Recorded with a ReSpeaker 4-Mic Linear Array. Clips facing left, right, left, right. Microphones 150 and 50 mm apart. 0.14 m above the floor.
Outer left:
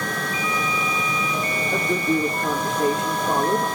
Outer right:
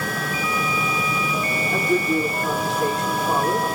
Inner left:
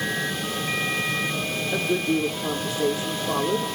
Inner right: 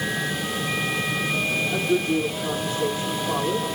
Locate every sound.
1.7 s a woman speaking: 50° left (ahead or behind), 6 m